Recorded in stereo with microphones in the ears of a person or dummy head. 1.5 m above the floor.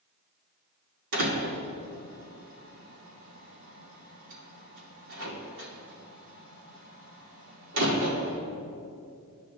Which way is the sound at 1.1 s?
65° right (ahead or behind).